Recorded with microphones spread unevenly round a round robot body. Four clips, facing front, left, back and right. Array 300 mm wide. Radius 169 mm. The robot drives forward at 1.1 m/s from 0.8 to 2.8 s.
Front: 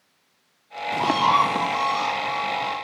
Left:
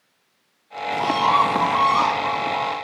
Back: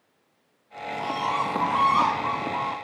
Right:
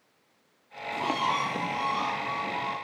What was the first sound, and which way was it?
A bird, 25° left.